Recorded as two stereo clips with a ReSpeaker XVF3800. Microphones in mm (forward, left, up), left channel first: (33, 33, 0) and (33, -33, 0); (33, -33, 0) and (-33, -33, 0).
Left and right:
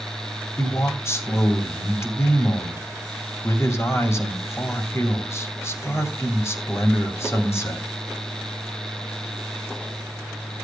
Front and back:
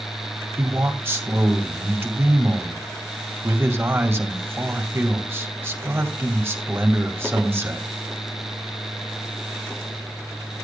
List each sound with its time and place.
0.6 s a man speaking: 130° left, 2.5 m